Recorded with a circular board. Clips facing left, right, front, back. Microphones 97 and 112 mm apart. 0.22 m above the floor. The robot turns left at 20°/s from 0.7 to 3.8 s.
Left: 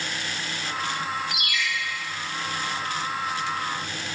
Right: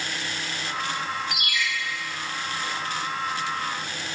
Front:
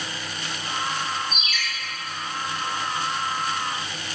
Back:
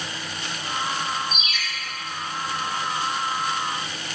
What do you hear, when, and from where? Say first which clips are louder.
1.3 s a ringtone: even, even; 115° right, 2 m; by 1.6 s 120° right, 2 m